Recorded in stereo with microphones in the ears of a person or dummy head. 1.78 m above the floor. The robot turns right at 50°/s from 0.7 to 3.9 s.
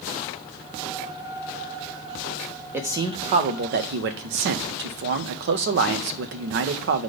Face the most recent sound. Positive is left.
turn(degrees=-115)